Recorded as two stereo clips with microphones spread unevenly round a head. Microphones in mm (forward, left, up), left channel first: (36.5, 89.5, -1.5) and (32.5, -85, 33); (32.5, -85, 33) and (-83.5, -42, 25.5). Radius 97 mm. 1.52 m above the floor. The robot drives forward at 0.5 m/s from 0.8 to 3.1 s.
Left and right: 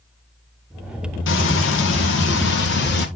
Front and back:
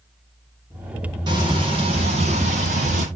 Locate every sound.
1.3 s frying: 95° left, 1.7 m; by 3.1 s 120° left, 2.0 m